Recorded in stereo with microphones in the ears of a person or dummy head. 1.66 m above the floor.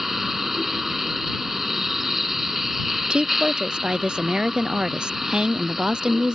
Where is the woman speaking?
5° right (ahead or behind).